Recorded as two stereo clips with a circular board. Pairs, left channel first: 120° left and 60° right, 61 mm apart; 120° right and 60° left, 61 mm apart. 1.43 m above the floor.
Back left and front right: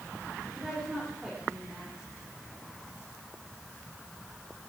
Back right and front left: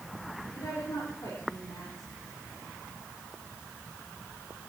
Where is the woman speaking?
135° right, 5.5 m.